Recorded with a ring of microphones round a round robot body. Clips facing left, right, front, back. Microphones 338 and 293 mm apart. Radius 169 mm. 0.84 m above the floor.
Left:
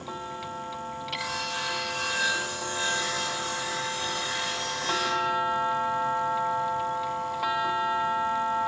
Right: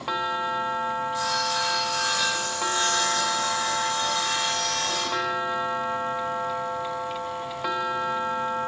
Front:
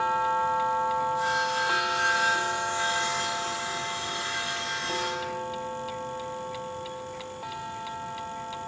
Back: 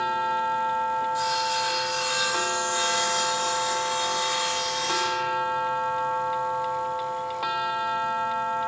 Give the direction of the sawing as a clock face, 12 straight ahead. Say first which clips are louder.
Right 6 dB, even; 5 o'clock.